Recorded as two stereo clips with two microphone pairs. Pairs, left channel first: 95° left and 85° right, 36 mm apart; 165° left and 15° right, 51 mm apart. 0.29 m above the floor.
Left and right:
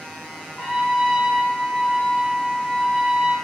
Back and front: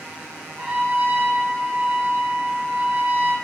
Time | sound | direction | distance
0.6 | a trumpet | 5° left | 1.5 m